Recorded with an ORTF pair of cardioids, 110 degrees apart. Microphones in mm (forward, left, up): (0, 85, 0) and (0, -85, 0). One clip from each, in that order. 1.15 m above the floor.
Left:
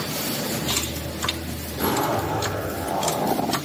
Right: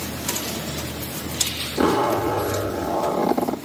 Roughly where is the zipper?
Ahead right.